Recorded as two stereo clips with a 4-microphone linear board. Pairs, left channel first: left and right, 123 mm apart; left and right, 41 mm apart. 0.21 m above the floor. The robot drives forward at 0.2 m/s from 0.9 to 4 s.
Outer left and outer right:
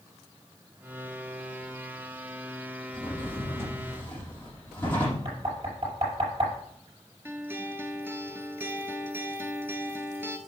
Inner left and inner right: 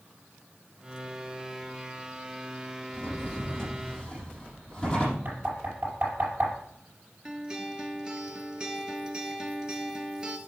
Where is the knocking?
55° right (ahead or behind), 5.5 m.